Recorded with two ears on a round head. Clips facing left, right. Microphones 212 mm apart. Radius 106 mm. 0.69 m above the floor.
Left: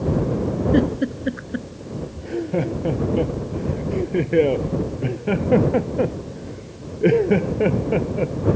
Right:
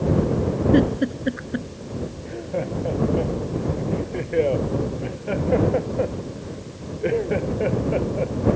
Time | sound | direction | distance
0.7 | a giggle | centre (ahead or behind) | ?
2.2 | laughter | 60° left (ahead or behind) | ?